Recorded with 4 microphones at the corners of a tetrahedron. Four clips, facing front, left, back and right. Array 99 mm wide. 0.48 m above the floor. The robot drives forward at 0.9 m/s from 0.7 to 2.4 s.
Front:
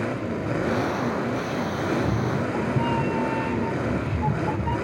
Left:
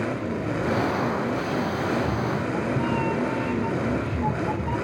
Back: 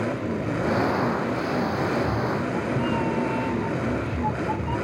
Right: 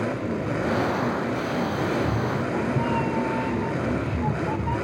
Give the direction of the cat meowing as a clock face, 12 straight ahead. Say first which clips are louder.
Even, even; 1 o'clock.